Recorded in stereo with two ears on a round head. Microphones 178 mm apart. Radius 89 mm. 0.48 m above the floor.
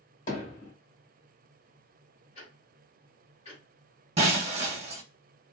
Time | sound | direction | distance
0.3 | hammering | 40° left (ahead or behind) | 1.7 m
2.4 | ticking | 35° left (ahead or behind) | 1.4 m
4.2 | breaking glass | 35° right (ahead or behind) | 1.1 m